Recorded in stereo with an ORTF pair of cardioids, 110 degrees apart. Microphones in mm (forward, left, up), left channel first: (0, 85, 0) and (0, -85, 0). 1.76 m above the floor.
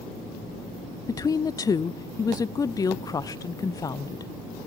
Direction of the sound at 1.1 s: 20° left.